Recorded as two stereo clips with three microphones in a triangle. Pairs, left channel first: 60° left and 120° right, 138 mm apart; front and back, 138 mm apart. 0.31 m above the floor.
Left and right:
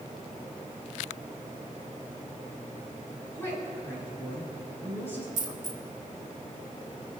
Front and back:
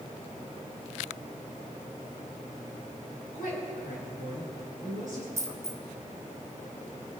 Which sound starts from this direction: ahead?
A woman speaking, at 3.3 s.